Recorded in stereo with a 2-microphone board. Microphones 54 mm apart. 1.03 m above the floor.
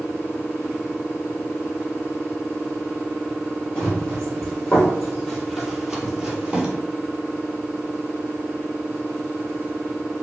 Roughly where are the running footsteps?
Centre.